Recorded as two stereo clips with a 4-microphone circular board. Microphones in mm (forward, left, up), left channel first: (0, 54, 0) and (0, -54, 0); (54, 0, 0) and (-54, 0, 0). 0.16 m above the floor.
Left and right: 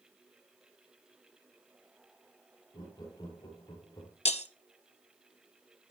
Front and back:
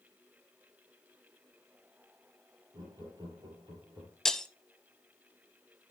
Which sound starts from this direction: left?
Breaking glass, at 4.2 s.